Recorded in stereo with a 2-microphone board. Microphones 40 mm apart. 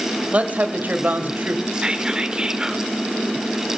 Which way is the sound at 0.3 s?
40° right (ahead or behind).